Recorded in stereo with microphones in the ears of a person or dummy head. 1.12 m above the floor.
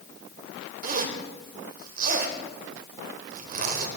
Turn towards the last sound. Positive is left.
turn(degrees=-45)  # may be behind; listen again after turning